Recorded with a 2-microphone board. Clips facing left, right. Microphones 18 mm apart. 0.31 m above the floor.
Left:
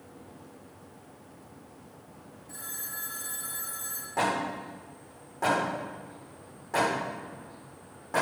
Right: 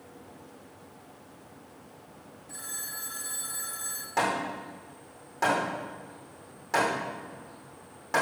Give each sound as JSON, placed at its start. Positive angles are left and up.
{"t": 2.5, "sound": "a phone ringing", "side_deg": -10, "distance_m": 1.5}
{"t": 4.2, "sound": "hammering", "side_deg": -70, "distance_m": 5.5}